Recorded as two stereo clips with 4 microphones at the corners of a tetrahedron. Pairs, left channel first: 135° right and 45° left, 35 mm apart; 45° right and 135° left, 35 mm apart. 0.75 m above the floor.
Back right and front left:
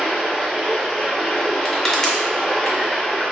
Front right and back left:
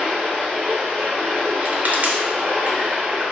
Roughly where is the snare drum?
No snare drum in this recording.